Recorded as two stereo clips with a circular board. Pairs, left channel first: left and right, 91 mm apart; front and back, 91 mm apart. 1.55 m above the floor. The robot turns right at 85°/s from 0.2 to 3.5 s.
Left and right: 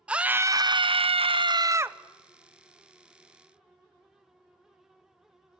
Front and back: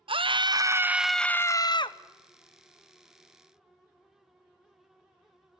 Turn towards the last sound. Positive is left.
turn(degrees=115)